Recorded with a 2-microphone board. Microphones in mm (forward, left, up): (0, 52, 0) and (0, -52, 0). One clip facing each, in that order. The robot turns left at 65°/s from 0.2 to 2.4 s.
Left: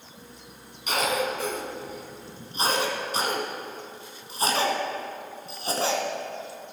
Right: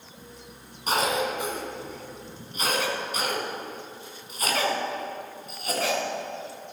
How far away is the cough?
About 2 m.